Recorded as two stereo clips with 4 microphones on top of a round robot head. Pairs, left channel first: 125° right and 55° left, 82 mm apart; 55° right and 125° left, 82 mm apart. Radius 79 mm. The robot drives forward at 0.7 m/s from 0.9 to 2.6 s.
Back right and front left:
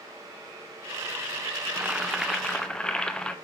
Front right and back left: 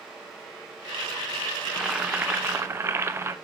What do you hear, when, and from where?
1.7 s boiling: 40° left, 0.8 m; by 3.4 s 160° left, 0.9 m